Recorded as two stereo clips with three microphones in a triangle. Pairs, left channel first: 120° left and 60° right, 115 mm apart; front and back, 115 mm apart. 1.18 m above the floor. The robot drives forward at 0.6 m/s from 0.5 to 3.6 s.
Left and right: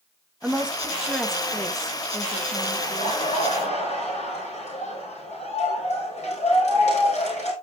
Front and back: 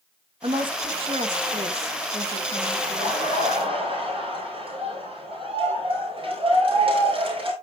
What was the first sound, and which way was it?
A woman speaking, 140° right.